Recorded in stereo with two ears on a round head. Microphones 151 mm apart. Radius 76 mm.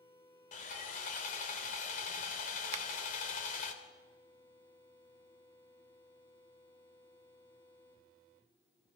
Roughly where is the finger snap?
Right.